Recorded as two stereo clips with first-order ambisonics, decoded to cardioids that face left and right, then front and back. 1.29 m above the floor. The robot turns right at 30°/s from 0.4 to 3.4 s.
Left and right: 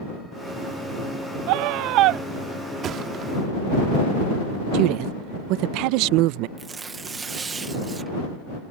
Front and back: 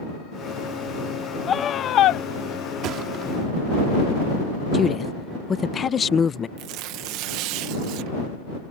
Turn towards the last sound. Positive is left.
turn(degrees=-160)